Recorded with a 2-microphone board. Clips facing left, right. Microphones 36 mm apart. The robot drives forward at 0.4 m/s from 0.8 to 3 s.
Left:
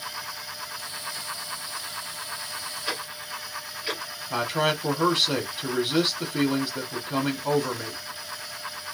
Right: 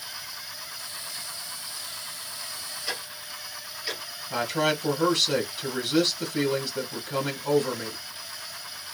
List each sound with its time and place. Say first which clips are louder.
2.9 s ticking: left 2 dB; 35° left (ahead or behind), 1.2 m
4.3 s a man speaking: left 1 dB; 25° left (ahead or behind), 1.2 m